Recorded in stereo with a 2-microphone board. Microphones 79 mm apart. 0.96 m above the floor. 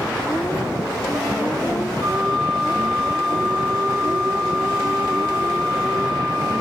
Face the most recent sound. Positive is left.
turn(degrees=75)  # may be behind; listen again after turning